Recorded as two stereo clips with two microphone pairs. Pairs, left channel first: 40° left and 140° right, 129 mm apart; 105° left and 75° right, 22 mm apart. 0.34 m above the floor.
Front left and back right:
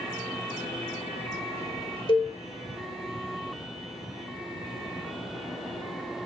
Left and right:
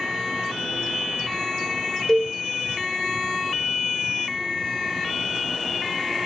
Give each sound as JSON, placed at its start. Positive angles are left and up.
{"t": 2.1, "sound": "a cowbell", "azimuth_deg": 50, "distance_m": 1.5}